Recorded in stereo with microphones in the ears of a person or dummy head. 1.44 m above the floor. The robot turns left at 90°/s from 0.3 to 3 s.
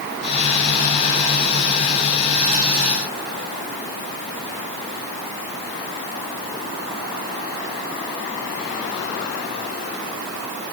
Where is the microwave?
No microwave in this recording.